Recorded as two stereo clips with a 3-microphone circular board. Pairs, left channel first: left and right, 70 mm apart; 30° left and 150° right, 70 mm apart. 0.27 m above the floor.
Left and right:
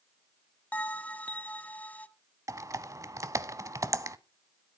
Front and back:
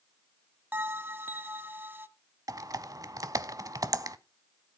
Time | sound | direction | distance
0.7 | a bell | 155° left | 0.7 m
2.5 | typing on a keyboard | 125° right | 0.7 m